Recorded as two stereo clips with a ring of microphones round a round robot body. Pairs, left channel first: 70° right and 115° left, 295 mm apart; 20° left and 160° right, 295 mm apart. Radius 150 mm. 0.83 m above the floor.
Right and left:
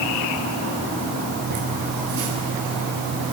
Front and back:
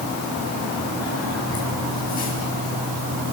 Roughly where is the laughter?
Left.